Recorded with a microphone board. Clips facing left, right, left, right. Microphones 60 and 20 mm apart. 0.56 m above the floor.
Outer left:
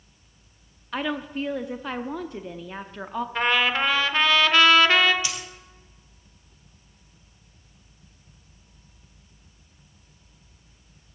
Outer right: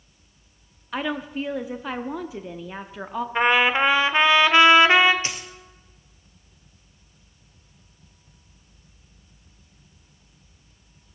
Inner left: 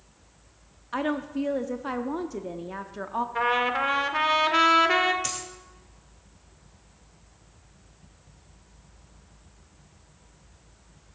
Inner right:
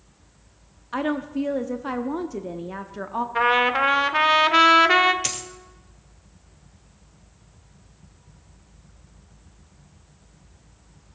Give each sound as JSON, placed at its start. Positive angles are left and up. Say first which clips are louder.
{"t": 0.9, "sound": "a woman speaking", "louder": "outer right 1 dB, inner right 3 dB", "side_deg": -5, "distance_m": 0.6}
{"t": 3.4, "sound": "a trumpet", "louder": "outer right 4 dB, inner right 6 dB", "side_deg": -20, "distance_m": 0.8}
{"t": 5.2, "sound": "a dropped coin", "louder": "outer right 1 dB, inner right 3 dB", "side_deg": -40, "distance_m": 1.5}